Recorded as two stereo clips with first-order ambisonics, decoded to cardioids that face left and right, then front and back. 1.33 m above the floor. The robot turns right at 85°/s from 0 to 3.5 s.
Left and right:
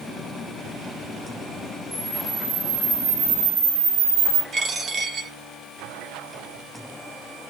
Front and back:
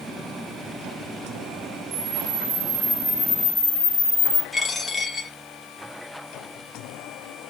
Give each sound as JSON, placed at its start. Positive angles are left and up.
{"t": 1.9, "sound": "a camera shutter", "azimuth_deg": 160, "distance_m": 0.8}
{"t": 4.5, "sound": "a dropped coin", "azimuth_deg": -65, "distance_m": 0.6}